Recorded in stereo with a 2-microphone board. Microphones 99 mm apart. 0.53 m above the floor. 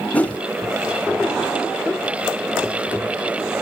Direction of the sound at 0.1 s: 15° left (ahead or behind).